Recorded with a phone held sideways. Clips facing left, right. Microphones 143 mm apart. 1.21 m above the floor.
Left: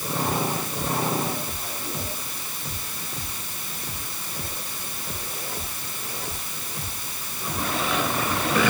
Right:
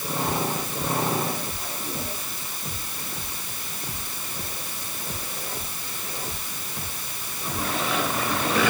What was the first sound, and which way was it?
Only background noise.